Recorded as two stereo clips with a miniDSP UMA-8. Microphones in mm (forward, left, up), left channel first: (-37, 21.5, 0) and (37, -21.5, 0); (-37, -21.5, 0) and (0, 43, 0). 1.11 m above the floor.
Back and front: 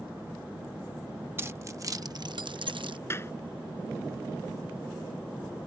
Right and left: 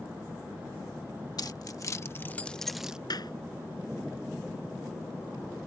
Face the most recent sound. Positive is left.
turn(degrees=-150)